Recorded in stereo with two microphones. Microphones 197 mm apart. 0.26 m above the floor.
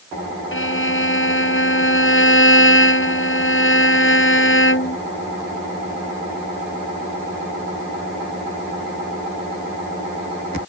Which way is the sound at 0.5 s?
70° left (ahead or behind).